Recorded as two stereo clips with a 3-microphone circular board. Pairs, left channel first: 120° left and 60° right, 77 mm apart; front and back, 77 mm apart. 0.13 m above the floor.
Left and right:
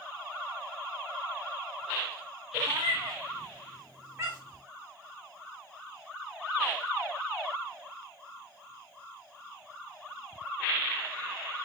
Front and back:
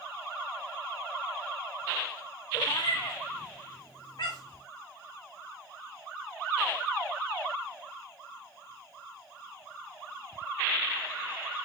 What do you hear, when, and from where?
2.5 s a cat meowing: 30° right, 3.5 m; by 4.6 s 5° right, 6 m